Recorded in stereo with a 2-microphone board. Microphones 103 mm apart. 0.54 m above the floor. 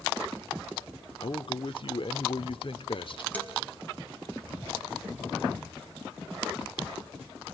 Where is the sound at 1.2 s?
55° left (ahead or behind), 1.2 m.